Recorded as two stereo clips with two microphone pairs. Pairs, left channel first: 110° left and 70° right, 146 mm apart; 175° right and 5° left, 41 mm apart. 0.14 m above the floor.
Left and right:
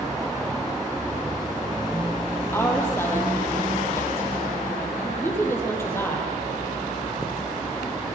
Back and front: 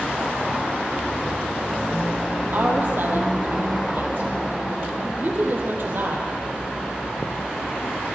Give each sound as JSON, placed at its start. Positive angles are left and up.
{"t": 2.5, "sound": "a woman speaking", "azimuth_deg": 40, "distance_m": 4.0}